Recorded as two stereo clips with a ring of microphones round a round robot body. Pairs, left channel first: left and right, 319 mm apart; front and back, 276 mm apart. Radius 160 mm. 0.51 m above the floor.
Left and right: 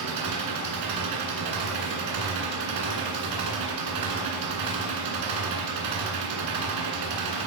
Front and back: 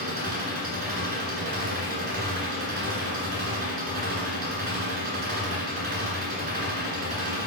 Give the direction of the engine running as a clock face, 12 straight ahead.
4 o'clock.